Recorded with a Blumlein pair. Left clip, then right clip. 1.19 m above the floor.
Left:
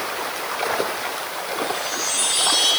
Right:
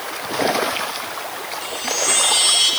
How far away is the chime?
About 8 m.